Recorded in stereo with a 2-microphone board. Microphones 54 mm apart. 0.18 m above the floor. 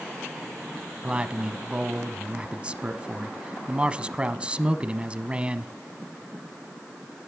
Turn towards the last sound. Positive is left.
turn(degrees=-20)  # may be behind; listen again after turning